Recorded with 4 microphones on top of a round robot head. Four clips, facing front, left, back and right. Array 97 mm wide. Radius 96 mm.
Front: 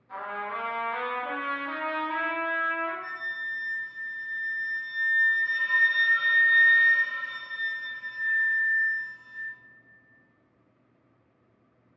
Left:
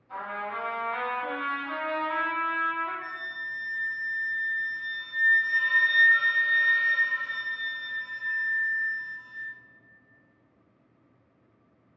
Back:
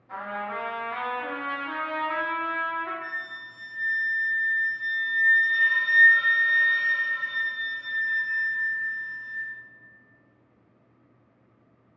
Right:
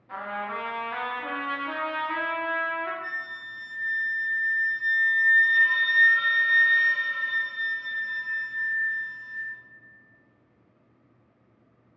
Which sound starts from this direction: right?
A trumpet, at 0.1 s.